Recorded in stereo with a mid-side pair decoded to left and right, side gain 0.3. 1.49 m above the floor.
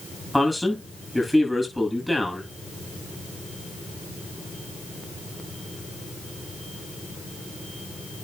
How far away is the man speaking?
About 8.5 m.